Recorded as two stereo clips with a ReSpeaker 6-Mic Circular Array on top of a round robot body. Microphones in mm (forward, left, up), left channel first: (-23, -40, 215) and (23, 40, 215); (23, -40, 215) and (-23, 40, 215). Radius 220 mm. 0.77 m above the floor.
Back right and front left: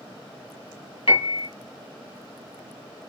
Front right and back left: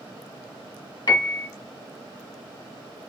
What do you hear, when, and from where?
1.1 s a piano: 100° right, 2 m